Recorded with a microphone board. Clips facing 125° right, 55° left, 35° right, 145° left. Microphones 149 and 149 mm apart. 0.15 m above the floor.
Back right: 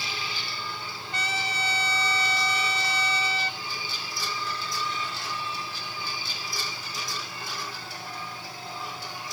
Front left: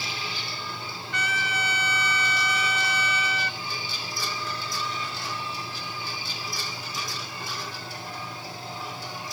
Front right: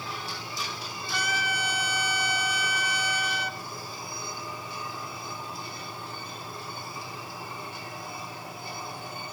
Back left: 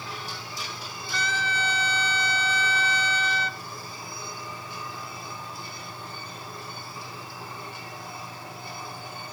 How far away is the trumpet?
About 0.7 m.